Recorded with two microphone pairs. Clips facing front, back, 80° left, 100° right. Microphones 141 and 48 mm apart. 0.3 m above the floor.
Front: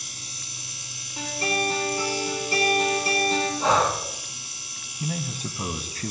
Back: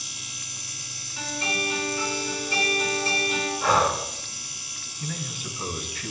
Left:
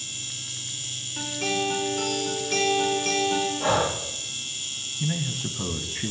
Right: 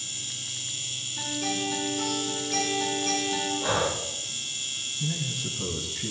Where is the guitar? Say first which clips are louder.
Front 3 dB, left 3 dB; 55° left, 6.5 m.